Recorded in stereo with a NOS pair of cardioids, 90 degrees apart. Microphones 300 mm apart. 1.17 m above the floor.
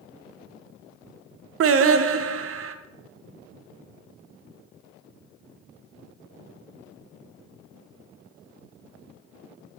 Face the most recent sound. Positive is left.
turn(degrees=-50)